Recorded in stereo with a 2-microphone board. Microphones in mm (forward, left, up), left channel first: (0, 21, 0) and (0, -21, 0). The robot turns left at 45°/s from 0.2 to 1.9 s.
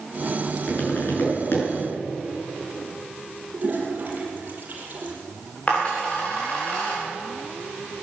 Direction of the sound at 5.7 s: 30° left (ahead or behind).